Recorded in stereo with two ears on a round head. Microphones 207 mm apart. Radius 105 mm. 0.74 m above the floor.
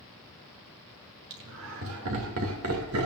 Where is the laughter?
60° right (ahead or behind), 2.5 m; by 3.1 s 75° right (ahead or behind), 2 m.